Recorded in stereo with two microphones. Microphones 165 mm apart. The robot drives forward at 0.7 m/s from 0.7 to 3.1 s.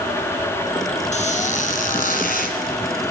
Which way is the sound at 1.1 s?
45° left (ahead or behind).